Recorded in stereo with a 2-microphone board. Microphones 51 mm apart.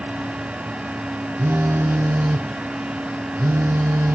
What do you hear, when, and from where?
1.4 s a phone buzzing: 55° right (ahead or behind), 0.8 m